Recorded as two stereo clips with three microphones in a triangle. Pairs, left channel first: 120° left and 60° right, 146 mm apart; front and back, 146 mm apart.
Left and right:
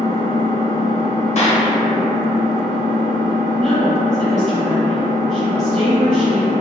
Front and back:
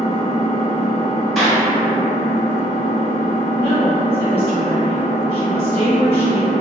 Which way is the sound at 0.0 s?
155° right.